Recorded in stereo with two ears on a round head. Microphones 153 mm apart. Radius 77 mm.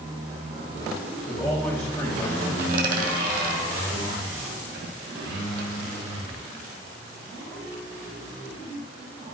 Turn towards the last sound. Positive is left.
turn(degrees=-55)  # may be behind; listen again after turning